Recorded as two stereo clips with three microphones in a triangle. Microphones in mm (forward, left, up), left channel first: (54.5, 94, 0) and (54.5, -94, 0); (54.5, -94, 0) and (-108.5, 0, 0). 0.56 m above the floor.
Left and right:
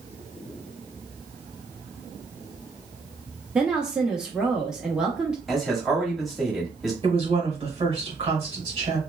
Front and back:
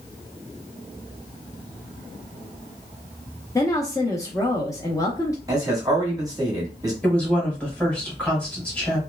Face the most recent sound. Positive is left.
turn(degrees=-110)